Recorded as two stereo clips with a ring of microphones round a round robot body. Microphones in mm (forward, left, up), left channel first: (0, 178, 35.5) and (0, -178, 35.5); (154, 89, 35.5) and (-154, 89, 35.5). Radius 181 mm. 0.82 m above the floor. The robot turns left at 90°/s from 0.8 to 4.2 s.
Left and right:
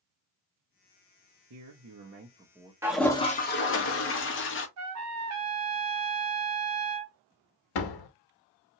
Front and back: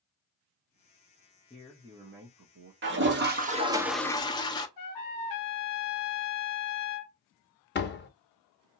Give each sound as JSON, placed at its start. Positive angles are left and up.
{"t": 1.5, "sound": "a man speaking", "azimuth_deg": -75, "distance_m": 0.7}
{"t": 2.8, "sound": "a toilet flushing", "azimuth_deg": -170, "distance_m": 0.9}
{"t": 4.8, "sound": "a trumpet", "azimuth_deg": -40, "distance_m": 0.5}
{"t": 7.8, "sound": "a door slam", "azimuth_deg": 60, "distance_m": 0.9}